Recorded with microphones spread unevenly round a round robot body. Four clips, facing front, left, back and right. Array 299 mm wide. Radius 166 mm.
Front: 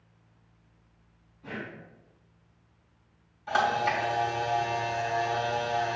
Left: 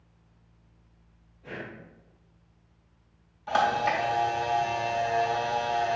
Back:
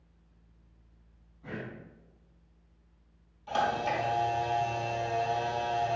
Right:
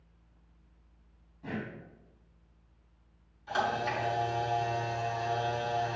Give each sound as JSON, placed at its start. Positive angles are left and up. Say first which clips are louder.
{"t": 1.4, "sound": "breathing", "louder": "right 1 dB, front 1 dB", "azimuth_deg": -100, "distance_m": 0.8}
{"t": 3.5, "sound": "a camera shutter", "louder": "left 6 dB, front 3 dB", "azimuth_deg": 60, "distance_m": 2.5}